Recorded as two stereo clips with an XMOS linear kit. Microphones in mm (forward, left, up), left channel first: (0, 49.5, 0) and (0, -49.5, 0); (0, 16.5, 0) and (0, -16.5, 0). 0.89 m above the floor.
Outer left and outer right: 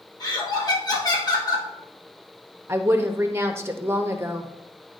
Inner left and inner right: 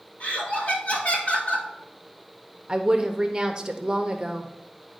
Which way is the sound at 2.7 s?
25° right (ahead or behind).